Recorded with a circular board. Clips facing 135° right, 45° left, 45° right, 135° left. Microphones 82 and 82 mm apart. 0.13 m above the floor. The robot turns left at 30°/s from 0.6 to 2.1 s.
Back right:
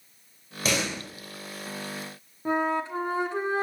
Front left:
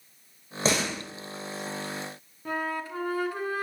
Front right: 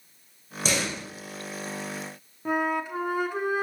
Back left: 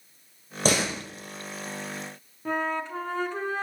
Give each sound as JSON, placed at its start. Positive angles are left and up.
{"t": 0.7, "sound": "a door slam", "azimuth_deg": 105, "distance_m": 2.0}
{"t": 2.5, "sound": "a flute", "azimuth_deg": -110, "distance_m": 0.7}